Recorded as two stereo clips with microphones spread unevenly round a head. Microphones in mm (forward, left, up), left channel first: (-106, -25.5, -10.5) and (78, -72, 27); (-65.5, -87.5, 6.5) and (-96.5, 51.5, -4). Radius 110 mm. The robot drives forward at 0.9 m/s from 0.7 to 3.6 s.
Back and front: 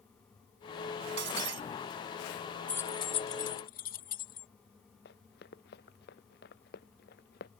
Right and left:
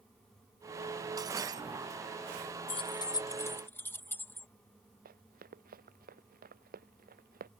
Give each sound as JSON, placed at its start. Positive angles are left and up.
{"t": 1.2, "sound": "breaking glass", "azimuth_deg": 30}
{"t": 2.7, "sound": "keys jangling", "azimuth_deg": -100}
{"t": 5.0, "sound": "running footsteps", "azimuth_deg": 115}